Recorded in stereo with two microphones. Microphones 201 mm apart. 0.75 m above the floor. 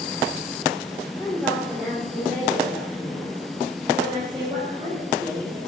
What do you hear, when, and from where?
1.2 s a woman speaking: 10° left (ahead or behind), 1.6 m; by 5.6 s 25° right (ahead or behind), 3.5 m